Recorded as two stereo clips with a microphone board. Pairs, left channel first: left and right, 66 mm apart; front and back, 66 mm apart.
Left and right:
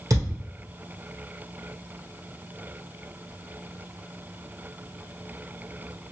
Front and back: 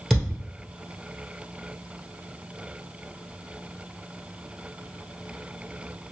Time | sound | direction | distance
0.1 | a thud | 90° right | 1.4 m